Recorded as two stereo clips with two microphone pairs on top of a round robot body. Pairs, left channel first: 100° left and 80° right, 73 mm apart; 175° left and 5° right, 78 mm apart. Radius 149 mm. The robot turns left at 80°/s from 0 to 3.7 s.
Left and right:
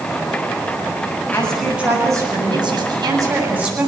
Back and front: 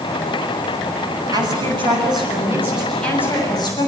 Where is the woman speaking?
30° left, 8 m; by 3.9 s 160° right, 8 m.